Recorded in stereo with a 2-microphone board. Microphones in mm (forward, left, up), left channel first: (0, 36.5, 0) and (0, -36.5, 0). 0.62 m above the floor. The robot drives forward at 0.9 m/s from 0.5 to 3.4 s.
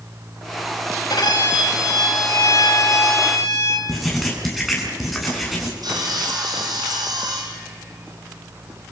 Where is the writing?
Centre (ahead or behind), 7 m.